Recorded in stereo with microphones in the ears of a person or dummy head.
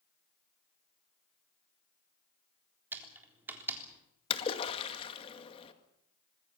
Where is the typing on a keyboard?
15° right (ahead or behind), 3.5 m.